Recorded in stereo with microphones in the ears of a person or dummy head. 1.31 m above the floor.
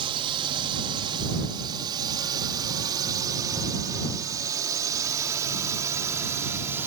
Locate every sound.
0.0 s a drone: 30° right (ahead or behind); by 6.9 s 15° right (ahead or behind)